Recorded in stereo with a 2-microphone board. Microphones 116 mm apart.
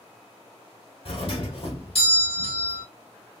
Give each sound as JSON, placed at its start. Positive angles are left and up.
{"t": 1.1, "sound": "a doorbell", "side_deg": 55, "distance_m": 1.8}